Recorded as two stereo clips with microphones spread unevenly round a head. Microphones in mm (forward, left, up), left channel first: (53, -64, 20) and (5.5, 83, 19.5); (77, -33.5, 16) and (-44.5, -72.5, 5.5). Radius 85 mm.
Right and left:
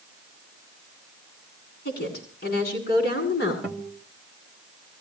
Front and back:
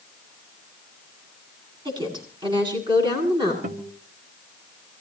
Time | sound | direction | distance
1.9 | a woman speaking | 110° right | 9 m
3.6 | a guitar | 165° right | 2 m